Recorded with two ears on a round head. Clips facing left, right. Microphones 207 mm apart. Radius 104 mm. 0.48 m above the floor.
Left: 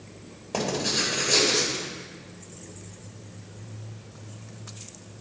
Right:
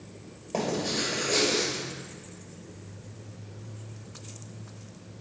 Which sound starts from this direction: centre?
Writing, at 0.5 s.